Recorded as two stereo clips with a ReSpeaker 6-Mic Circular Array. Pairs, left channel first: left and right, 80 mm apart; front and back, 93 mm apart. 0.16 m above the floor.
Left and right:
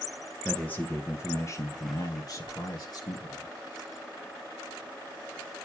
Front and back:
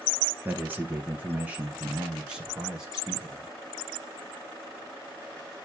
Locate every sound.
0.5 s a man speaking: 140° left, 1.1 m; by 3.5 s 95° left, 2 m